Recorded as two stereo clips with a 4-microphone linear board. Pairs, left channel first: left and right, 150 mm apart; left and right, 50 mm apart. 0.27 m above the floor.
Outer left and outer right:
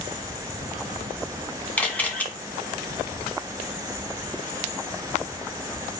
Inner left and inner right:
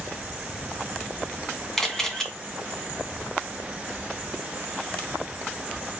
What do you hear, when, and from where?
1.8 s a camera shutter: 10° left (ahead or behind), 1.9 m